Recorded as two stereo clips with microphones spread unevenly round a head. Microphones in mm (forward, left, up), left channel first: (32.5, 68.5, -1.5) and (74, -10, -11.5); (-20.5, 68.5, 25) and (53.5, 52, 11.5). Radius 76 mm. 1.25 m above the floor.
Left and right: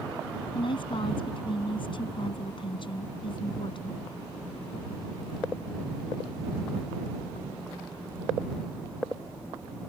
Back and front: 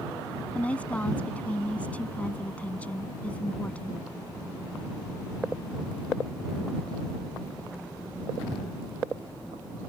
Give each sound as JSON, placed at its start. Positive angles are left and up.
{"t": 0.6, "sound": "a woman speaking", "azimuth_deg": 95}